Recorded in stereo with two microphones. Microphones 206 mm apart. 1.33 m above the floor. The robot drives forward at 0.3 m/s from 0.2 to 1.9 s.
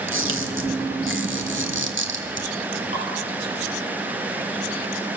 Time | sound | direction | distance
0.1 | a camera shutter | 80° right | 2.5 m
2.9 | dripping | 35° right (ahead or behind) | 8.5 m